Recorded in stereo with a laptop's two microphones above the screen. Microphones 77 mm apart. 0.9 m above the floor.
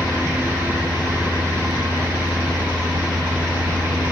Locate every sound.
0.0 s a fan: 30° right (ahead or behind), 7 m